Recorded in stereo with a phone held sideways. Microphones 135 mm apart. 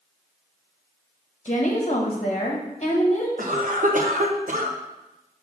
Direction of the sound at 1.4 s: 50° left (ahead or behind).